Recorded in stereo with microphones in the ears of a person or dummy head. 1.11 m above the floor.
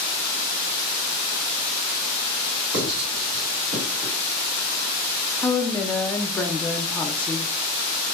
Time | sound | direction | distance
2.7 | writing | 85° right | 1.8 m
5.4 | a woman speaking | 10° left (ahead or behind) | 0.6 m